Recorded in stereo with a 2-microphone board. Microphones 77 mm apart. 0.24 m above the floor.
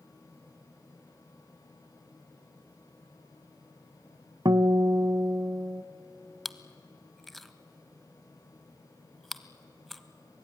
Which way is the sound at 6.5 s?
5° left (ahead or behind).